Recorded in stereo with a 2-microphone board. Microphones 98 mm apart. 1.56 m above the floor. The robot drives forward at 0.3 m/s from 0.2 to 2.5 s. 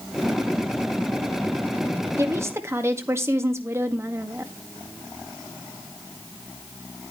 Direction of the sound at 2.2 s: 30° right (ahead or behind).